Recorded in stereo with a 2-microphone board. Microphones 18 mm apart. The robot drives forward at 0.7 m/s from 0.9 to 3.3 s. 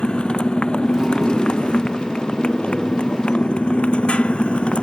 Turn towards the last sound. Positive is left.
turn(degrees=75)  # may be behind; listen again after turning